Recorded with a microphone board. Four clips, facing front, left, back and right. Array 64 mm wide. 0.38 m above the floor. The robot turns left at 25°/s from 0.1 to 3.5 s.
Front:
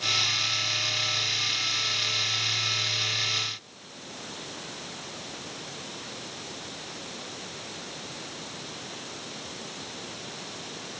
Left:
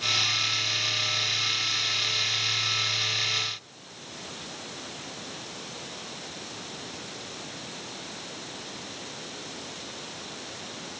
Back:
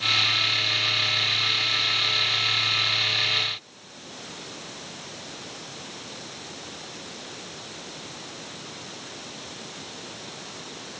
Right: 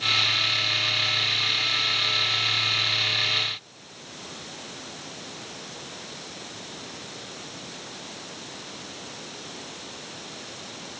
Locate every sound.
Only background noise.